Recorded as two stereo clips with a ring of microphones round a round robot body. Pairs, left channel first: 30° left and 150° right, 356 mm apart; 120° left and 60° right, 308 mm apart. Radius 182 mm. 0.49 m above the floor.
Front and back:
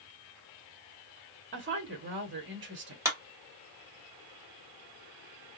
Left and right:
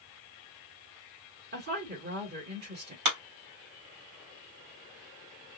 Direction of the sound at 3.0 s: 70° right.